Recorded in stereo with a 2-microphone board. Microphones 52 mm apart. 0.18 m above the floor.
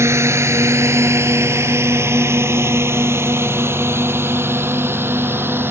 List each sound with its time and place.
0.0 s a drone: 60° right (ahead or behind); by 5.7 s 50° right (ahead or behind)